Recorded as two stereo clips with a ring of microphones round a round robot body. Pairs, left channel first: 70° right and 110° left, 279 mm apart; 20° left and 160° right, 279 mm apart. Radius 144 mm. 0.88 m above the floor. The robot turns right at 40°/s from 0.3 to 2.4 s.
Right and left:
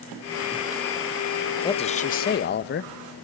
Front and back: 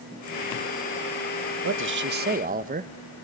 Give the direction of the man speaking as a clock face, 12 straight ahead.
5 o'clock.